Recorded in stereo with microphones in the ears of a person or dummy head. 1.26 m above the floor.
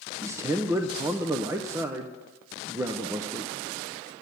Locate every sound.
0.2 s a man speaking: 15° right (ahead or behind), 0.6 m